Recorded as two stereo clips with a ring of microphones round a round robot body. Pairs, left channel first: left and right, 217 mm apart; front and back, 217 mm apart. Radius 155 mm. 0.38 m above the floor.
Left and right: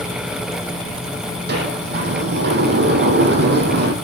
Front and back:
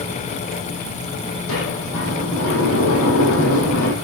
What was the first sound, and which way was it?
A sliding door, 50° right.